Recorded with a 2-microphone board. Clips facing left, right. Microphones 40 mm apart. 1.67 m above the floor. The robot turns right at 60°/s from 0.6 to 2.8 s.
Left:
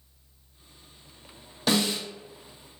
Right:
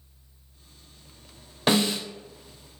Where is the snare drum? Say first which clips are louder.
Right 2 dB; 35° right (ahead or behind), 0.9 m; by 2.0 s 60° right (ahead or behind), 0.9 m.